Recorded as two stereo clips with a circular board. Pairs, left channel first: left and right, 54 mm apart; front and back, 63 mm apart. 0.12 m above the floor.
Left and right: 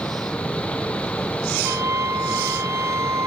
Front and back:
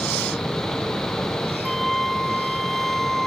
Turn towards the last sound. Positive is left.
turn(degrees=-85)